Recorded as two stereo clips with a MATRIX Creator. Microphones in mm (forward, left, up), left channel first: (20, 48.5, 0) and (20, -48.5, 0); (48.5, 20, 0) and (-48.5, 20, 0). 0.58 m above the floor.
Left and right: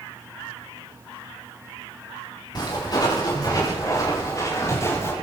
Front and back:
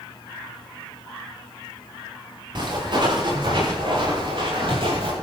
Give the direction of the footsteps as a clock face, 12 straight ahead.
7 o'clock.